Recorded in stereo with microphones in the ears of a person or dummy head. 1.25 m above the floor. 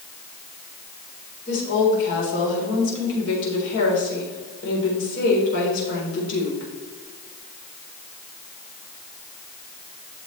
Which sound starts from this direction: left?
A woman speaking, at 1.5 s.